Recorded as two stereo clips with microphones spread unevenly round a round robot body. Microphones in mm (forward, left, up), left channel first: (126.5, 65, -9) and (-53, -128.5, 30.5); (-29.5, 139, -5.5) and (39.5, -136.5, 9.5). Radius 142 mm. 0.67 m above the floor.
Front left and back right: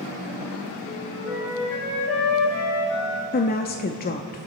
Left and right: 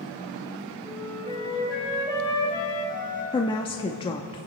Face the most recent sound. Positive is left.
turn(degrees=45)